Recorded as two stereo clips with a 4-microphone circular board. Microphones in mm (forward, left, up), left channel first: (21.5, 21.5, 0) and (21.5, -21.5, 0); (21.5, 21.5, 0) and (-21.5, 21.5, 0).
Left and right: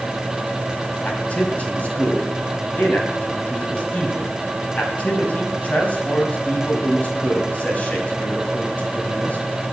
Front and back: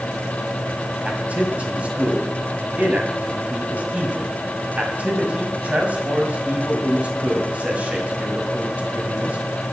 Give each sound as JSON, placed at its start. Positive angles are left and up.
{"t": 1.1, "sound": "a man speaking", "azimuth_deg": 135, "distance_m": 2.5}